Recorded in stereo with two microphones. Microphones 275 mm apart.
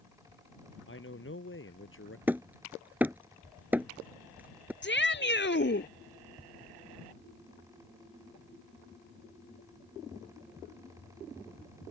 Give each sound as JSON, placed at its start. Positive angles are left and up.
{"t": 0.9, "sound": "a man speaking", "side_deg": 45}
{"t": 2.3, "sound": "hammering", "side_deg": -5}
{"t": 4.8, "sound": "a shout", "side_deg": 45}